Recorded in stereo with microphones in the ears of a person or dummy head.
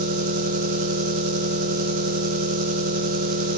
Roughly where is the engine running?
Right.